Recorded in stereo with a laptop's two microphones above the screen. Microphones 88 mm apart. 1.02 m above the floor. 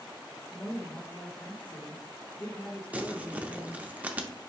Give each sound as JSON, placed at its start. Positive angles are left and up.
{"t": 0.5, "sound": "a woman speaking", "side_deg": 15, "distance_m": 2.0}
{"t": 2.9, "sound": "crumpling", "side_deg": -15, "distance_m": 0.6}